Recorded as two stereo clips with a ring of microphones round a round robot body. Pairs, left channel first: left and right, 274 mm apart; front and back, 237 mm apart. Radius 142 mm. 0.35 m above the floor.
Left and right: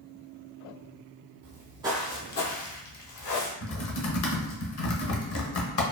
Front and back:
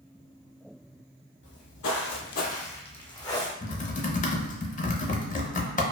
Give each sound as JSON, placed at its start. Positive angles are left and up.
{"t": 1.4, "sound": "footsteps", "azimuth_deg": -50, "distance_m": 0.6}
{"t": 3.6, "sound": "typing on a keyboard", "azimuth_deg": 55, "distance_m": 0.7}